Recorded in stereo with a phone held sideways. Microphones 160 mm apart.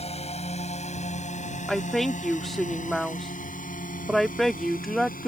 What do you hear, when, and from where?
0.0 s a drone: 40° left (ahead or behind); by 5.3 s 60° left (ahead or behind)
1.7 s a woman speaking: centre (ahead or behind)